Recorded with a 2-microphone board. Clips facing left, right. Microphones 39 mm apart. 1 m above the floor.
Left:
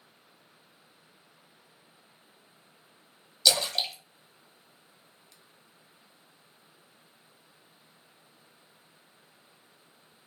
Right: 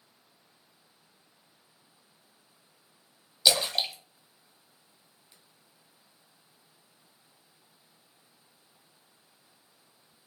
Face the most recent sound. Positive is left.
turn(degrees=-20)  # may be behind; listen again after turning